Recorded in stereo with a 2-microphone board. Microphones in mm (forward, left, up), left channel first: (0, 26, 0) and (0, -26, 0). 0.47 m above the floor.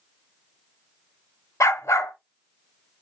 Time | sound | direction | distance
1.6 | a dog barking | 75° left (ahead or behind) | 0.9 m